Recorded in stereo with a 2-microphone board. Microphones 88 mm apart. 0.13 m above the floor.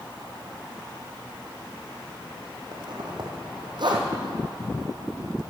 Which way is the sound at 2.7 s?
55° right (ahead or behind).